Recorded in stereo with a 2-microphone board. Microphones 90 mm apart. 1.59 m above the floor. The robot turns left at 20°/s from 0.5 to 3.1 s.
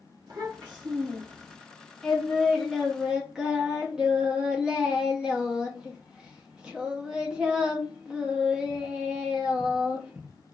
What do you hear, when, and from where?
0.3 s a child speaking: 50° right (ahead or behind), 0.9 m; by 1.6 s 65° right (ahead or behind), 0.9 m
2.0 s singing: 5° left (ahead or behind), 0.7 m; by 10.3 s 10° right (ahead or behind), 0.7 m